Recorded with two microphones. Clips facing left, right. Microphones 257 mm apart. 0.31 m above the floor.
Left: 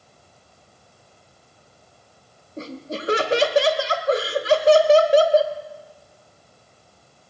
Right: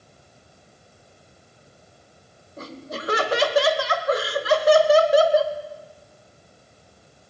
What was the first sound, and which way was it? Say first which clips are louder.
Laughter: left 4 dB; 30° left (ahead or behind).